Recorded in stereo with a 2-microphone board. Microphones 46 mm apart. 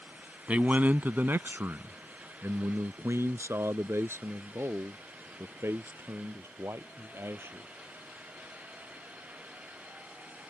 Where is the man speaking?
30° right (ahead or behind); by 7.7 s 65° right (ahead or behind).